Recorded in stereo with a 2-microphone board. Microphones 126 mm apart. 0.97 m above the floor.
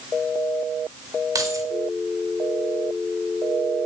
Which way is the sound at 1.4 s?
30° right (ahead or behind).